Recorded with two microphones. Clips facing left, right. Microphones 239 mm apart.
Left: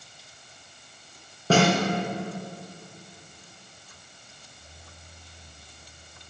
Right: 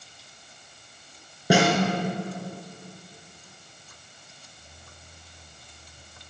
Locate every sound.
1.5 s a snare drum: 10° right (ahead or behind), 3 m